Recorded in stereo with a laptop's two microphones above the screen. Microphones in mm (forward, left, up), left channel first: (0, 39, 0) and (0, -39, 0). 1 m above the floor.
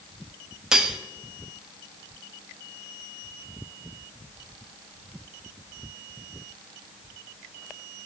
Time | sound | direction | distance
0.7 | cutlery clinking | 10° right (ahead or behind) | 0.7 m